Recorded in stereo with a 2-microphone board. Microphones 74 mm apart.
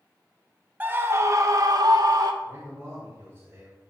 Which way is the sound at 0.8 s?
20° right (ahead or behind).